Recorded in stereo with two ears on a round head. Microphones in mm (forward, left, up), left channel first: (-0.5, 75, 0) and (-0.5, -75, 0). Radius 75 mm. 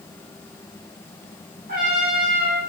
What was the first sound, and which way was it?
A trumpet, 60° right (ahead or behind).